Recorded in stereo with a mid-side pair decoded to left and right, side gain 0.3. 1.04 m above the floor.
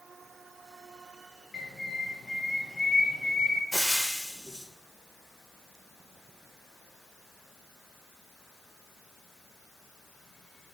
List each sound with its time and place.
1.5 s a bird: 30° left, 0.7 m
3.7 s frying: 5° left, 0.7 m